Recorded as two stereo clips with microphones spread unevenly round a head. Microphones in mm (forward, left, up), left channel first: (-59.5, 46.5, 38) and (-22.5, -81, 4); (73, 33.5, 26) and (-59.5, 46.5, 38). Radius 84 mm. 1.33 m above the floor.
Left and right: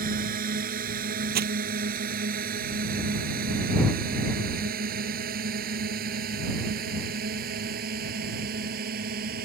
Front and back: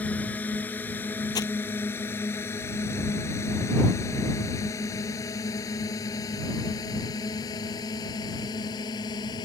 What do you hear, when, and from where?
0.0 s a drone: 85° right; by 9.5 s 70° right
1.4 s crumpling: 75° right